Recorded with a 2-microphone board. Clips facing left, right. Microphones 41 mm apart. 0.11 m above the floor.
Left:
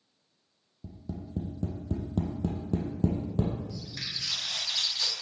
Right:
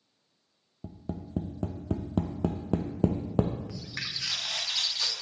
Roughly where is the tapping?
Right.